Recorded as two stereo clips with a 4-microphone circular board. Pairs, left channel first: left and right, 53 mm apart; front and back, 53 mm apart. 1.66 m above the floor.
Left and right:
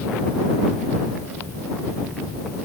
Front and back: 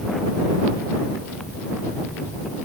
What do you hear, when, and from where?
Only background noise.